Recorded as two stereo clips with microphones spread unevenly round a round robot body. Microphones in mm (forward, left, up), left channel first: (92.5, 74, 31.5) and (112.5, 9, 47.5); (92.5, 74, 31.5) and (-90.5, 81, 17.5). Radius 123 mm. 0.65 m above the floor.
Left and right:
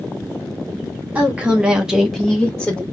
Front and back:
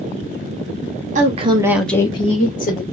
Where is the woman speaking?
155° right, 1.0 m; by 2.8 s 30° left, 1.3 m.